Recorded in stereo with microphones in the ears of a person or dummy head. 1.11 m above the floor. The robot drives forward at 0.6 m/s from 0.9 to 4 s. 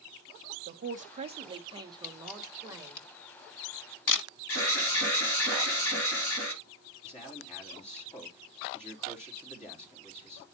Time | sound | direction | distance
0.7 | a man speaking | 40° right (ahead or behind) | 0.7 m
2.0 | a camera shutter | 40° left (ahead or behind) | 1.9 m
4.5 | an alarm | 65° left (ahead or behind) | 3 m
7.0 | a man speaking | 35° left (ahead or behind) | 2.5 m